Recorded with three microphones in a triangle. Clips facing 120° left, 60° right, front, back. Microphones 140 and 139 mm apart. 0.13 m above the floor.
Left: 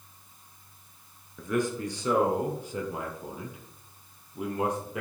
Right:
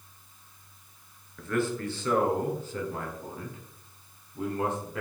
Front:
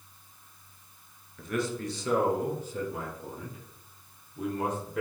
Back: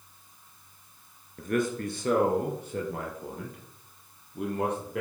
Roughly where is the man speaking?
Behind.